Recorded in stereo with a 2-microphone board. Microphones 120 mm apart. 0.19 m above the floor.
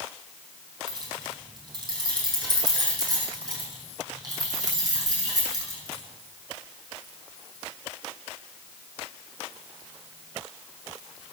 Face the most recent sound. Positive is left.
turn(degrees=-30)  # may be behind; listen again after turning